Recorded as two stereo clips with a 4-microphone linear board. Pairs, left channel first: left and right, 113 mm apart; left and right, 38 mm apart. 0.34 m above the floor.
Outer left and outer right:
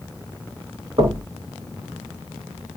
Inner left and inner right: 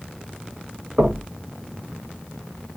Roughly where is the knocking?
Right.